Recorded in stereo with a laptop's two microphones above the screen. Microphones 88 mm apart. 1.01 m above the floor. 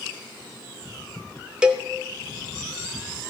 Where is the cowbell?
10° right (ahead or behind), 0.8 m.